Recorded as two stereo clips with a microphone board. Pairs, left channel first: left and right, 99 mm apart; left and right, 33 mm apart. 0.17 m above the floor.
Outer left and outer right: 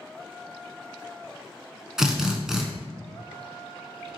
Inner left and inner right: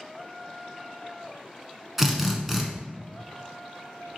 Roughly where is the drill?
Centre.